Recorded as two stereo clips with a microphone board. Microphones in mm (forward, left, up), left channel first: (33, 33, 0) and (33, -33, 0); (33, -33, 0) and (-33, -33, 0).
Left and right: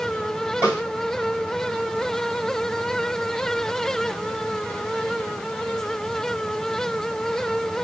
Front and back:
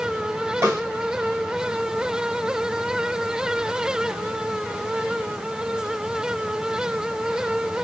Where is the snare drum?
145° right, 2.5 m.